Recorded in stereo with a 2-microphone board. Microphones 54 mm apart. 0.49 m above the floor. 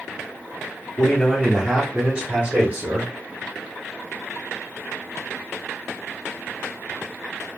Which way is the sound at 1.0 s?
15° left (ahead or behind).